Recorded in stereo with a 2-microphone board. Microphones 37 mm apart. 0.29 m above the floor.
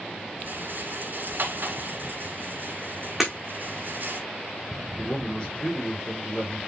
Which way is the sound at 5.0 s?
25° left (ahead or behind).